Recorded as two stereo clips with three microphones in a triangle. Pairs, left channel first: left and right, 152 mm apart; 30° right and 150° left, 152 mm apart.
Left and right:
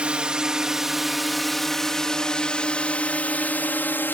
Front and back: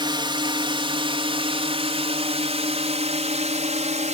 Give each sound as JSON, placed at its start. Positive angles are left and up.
{"t": 0.0, "sound": "a drone", "azimuth_deg": -170}